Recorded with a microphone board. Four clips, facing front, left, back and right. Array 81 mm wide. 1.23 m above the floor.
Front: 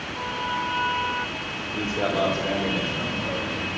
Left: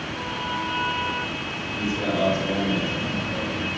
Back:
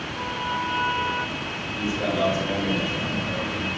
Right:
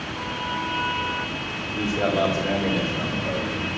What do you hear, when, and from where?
1.7 s a man speaking: 40° right, 3 m; by 3.7 s 75° right, 3.5 m